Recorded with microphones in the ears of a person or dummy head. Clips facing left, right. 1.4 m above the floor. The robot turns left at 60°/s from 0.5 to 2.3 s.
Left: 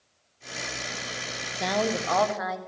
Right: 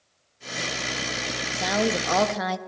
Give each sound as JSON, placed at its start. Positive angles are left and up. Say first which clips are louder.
{"t": 1.6, "sound": "a woman speaking", "louder": "right 2 dB", "azimuth_deg": 5, "distance_m": 1.2}